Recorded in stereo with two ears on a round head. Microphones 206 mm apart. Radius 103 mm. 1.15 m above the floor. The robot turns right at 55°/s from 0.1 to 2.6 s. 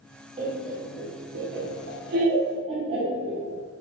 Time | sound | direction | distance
0.4 | laughter | 25° right (ahead or behind) | 0.7 m